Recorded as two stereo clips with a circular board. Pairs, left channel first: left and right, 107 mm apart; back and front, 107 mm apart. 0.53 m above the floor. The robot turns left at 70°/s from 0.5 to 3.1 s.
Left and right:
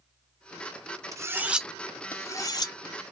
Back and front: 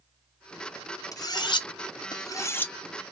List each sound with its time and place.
1.1 s cutlery clinking: 135° right, 0.5 m; by 2.7 s 110° left, 0.5 m